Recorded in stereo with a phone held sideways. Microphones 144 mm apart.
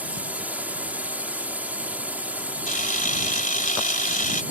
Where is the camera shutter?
70° left (ahead or behind).